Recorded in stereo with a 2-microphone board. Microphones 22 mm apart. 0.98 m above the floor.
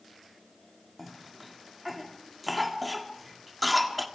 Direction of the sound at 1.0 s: 5° right (ahead or behind).